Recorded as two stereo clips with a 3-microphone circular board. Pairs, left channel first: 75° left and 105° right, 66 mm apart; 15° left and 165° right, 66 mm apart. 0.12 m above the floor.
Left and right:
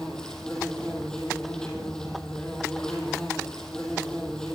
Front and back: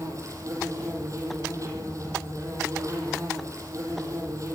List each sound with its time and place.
0.0 s an insect: 155° left, 6.5 m